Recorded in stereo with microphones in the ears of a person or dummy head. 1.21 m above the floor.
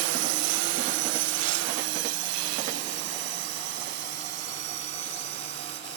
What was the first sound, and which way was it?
A drone, 75° right (ahead or behind).